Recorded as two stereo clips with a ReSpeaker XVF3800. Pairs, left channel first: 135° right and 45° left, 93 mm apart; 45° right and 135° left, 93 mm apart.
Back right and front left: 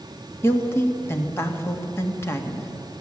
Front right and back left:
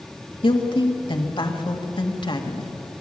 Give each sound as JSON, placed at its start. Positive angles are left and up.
{"t": 0.4, "sound": "a woman speaking", "azimuth_deg": -70, "distance_m": 2.0}